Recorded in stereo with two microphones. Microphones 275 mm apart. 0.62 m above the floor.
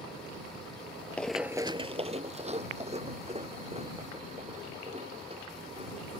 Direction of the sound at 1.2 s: 5° left (ahead or behind).